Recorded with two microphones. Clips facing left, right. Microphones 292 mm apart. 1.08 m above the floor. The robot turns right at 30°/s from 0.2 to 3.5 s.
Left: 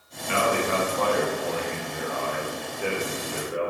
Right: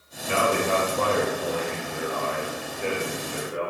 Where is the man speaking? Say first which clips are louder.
Right 1 dB; 65° right, 0.7 m; by 3.7 s 35° left, 0.7 m.